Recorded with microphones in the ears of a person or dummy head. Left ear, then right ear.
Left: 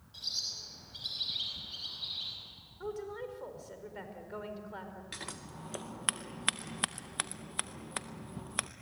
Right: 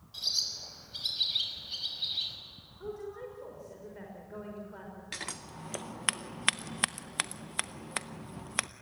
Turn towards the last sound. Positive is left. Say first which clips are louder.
# right 6 dB
turn(degrees=-10)  # may be behind; listen again after turning